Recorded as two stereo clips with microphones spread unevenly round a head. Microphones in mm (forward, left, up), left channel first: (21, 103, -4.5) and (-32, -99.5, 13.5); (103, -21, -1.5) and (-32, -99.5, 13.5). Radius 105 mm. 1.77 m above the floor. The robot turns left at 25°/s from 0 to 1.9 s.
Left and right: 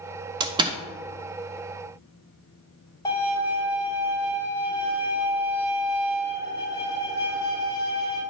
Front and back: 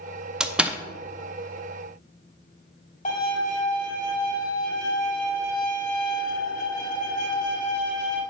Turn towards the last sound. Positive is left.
turn(degrees=0)